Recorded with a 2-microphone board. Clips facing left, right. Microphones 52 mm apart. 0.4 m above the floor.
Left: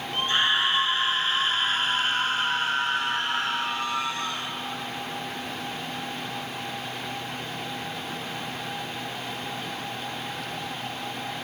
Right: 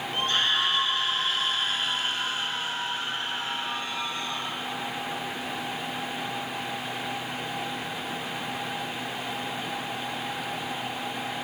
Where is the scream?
20° left (ahead or behind), 4.5 m; by 4.5 s 80° left, 4.5 m.